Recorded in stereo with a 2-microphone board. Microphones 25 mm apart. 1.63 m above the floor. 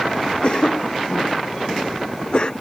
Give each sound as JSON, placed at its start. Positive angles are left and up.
{"t": 0.4, "sound": "a cough", "side_deg": 45}